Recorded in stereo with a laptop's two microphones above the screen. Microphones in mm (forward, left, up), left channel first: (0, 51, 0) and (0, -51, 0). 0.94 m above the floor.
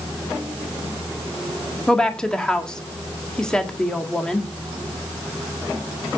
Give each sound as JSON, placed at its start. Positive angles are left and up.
{"t": 1.9, "sound": "a woman speaking", "side_deg": 5, "distance_m": 1.6}